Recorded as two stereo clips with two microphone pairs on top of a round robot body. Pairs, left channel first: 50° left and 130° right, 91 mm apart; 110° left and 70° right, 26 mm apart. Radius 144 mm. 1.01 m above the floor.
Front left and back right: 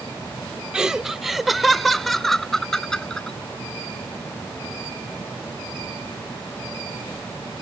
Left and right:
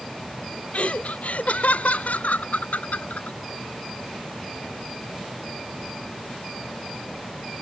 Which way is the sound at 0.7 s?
150° left.